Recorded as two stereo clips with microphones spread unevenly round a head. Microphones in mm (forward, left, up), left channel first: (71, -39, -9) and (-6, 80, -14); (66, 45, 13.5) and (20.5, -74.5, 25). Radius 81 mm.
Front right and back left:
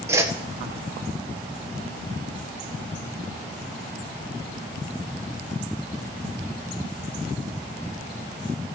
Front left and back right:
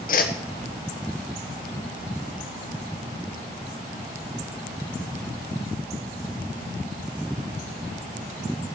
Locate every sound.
0.1 s a whoosh: 50° left, 1.4 m